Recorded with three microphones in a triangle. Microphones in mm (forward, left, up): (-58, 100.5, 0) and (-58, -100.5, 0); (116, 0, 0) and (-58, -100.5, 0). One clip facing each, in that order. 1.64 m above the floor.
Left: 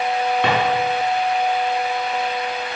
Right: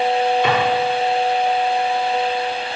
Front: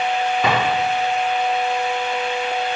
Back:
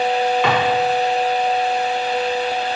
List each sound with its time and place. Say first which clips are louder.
0.4 s a drawer: right 1 dB, front 2 dB; 75° left, 5 m